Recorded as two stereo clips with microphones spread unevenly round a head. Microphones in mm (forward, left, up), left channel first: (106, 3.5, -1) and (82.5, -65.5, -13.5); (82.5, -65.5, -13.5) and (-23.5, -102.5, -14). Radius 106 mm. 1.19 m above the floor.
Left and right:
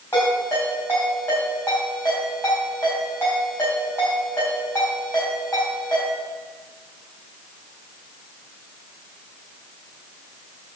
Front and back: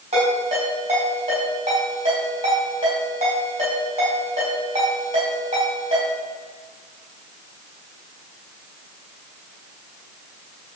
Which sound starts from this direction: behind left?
A ringtone, at 0.1 s.